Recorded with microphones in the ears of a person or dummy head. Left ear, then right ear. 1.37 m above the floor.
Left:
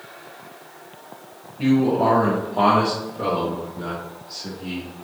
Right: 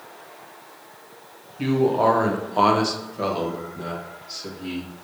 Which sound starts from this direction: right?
A man speaking, at 1.6 s.